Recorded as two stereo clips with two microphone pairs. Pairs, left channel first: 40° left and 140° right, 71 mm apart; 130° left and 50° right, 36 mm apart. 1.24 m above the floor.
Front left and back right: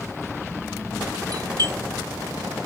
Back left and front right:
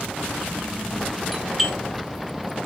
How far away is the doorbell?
About 1.6 m.